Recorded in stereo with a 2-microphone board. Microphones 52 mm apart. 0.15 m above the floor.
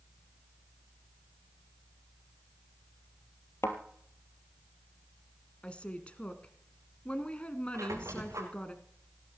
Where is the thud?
50° left (ahead or behind), 2 m.